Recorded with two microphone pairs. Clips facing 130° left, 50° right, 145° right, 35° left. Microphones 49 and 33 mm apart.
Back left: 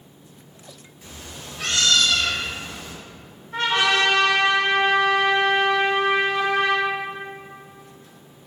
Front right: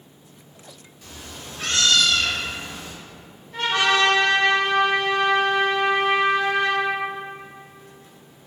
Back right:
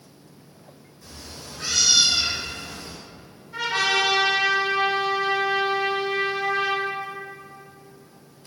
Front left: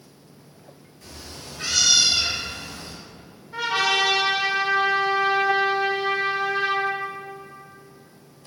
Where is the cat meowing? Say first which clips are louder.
Even, front left 1 dB; 60° left, 1.1 m; by 2.9 s 40° left, 2 m.